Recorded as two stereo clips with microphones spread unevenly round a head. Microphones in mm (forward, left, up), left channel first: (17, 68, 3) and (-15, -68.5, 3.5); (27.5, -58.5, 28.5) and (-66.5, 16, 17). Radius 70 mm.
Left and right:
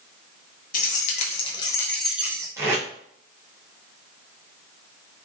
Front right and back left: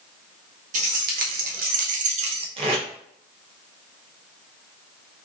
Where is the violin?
No violin in this recording.